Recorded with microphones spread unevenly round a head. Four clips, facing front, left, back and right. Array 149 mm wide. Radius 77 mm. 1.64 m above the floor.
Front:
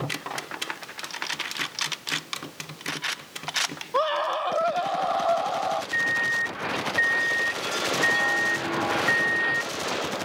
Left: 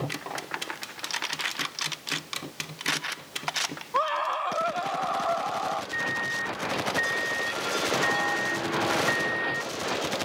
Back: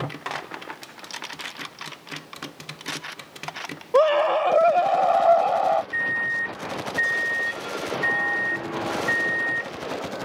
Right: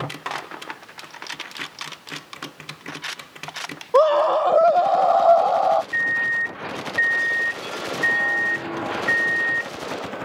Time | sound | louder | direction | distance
3.9 | a scream | right 11 dB, back 7 dB | 130° right | ?
5.9 | a microwave | right 6 dB, even | 105° right | ?